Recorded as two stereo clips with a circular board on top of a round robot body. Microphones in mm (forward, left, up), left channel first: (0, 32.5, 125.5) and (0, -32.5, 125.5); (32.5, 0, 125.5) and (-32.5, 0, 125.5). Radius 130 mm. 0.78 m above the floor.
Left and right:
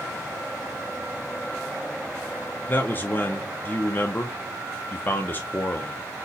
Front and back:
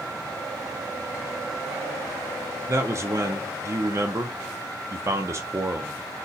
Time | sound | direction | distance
2.7 | a man speaking | 145° left | 0.5 m